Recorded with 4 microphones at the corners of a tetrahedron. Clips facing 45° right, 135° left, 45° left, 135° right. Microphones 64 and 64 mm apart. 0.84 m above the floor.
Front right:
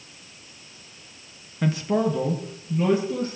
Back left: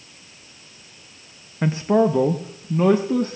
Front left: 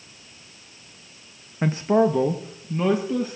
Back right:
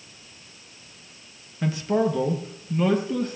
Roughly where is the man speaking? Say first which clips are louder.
Back left 5 dB, front left 4 dB; left.